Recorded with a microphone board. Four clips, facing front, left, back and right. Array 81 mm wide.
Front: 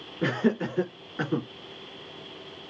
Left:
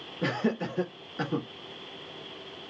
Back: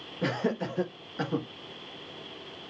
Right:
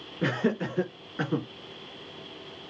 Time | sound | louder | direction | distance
0.2 | laughter | right 2 dB, front 4 dB | 45° right | 1.7 m